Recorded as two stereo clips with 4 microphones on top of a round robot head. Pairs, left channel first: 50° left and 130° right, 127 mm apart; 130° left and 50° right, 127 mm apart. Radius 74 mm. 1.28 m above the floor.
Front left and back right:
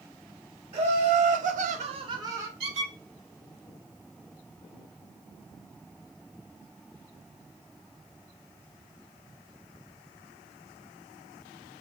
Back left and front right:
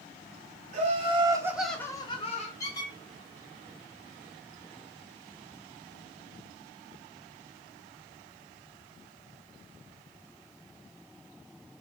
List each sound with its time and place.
0.7 s laughter: 85° right, 1.1 m; by 2.5 s 160° left, 1.0 m
2.6 s a squeak: 170° right, 0.9 m